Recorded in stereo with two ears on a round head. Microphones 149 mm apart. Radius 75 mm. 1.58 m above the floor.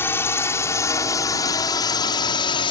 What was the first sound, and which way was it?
A drone, 15° left (ahead or behind).